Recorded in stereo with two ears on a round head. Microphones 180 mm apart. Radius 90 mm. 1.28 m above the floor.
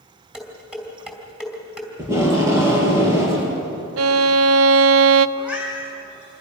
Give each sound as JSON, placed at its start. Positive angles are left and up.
{"t": 0.3, "sound": "dishes clattering", "side_deg": -5, "distance_m": 4.0}
{"t": 2.0, "sound": "tape being pulled", "side_deg": -15, "distance_m": 6.0}
{"t": 4.0, "sound": "a violin", "side_deg": -75, "distance_m": 0.6}
{"t": 5.4, "sound": "a cat meowing", "side_deg": -5, "distance_m": 5.0}